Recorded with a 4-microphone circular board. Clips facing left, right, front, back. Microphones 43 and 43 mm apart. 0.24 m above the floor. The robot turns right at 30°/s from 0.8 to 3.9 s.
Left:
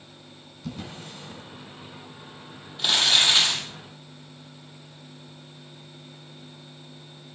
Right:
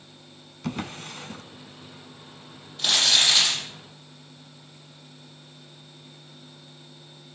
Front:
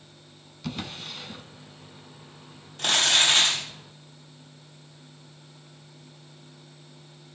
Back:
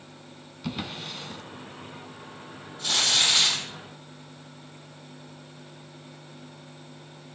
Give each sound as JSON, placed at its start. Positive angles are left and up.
{"t": 0.6, "sound": "a drawer", "azimuth_deg": -100, "distance_m": 1.0}
{"t": 2.8, "sound": "crumpling", "azimuth_deg": 10, "distance_m": 9.0}